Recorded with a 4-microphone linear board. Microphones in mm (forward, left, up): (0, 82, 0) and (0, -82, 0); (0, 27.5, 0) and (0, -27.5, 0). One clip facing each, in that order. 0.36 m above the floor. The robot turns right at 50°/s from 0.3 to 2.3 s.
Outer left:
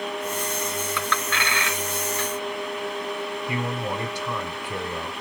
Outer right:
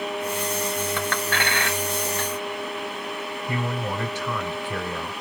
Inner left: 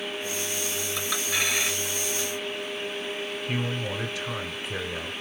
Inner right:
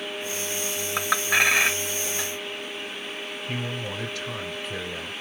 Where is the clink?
45° right (ahead or behind), 0.6 m; by 2.3 s 40° right (ahead or behind), 0.6 m.